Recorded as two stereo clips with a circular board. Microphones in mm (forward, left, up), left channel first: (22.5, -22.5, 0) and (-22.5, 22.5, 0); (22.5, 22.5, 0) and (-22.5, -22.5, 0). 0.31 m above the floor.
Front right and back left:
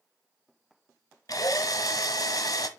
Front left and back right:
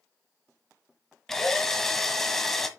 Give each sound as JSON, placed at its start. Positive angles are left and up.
{"t": 1.3, "sound": "a drill", "azimuth_deg": -40, "distance_m": 1.2}